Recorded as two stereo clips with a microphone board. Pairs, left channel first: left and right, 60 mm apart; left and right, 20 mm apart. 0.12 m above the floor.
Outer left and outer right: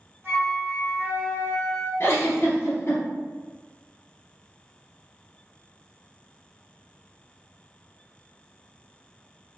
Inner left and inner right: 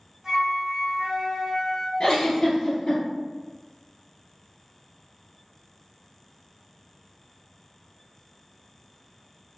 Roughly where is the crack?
I don't hear a crack.